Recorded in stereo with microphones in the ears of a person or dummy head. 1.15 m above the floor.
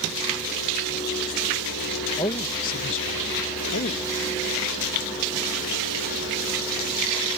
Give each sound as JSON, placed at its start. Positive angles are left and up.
{"t": 2.2, "sound": "a man speaking", "side_deg": 15}